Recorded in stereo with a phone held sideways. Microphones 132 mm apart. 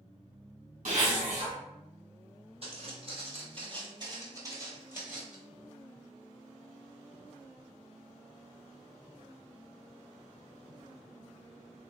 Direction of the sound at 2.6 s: 50° right (ahead or behind).